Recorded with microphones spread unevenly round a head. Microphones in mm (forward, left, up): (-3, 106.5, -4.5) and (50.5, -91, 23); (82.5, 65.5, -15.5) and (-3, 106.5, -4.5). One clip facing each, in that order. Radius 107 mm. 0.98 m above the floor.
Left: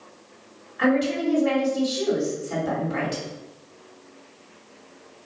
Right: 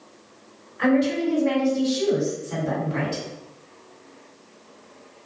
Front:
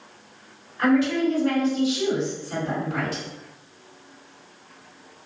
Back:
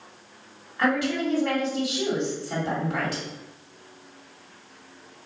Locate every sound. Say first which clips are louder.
0.8 s a woman speaking: right 1 dB, front 4 dB; 135° left, 1.9 m